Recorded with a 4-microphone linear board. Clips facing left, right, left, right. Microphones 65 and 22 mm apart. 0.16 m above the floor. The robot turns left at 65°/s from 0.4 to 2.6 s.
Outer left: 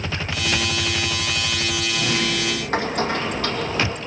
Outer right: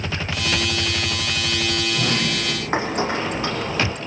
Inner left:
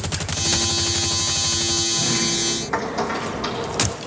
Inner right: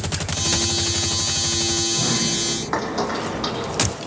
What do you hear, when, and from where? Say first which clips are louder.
1.9 s a sliding door: even, even; 120° right, 2.5 m; by 4.0 s 160° right, 2.5 m